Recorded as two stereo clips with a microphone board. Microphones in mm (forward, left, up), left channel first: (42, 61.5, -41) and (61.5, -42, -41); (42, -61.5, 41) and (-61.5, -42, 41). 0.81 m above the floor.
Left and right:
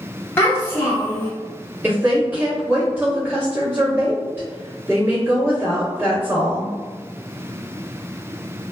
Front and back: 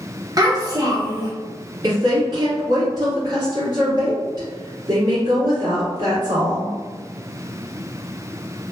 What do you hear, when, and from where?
0.4 s a child speaking: 150° left, 0.6 m
1.8 s a woman speaking: 150° right, 1.4 m